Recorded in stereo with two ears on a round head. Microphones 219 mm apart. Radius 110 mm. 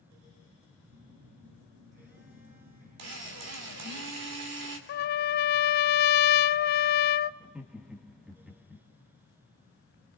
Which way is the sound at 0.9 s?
50° right (ahead or behind).